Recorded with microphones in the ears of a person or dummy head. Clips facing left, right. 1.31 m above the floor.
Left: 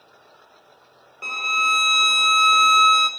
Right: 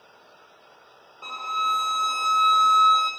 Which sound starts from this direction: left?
A violin, at 1.2 s.